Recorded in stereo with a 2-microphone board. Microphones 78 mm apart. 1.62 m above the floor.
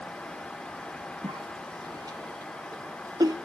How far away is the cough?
About 0.6 m.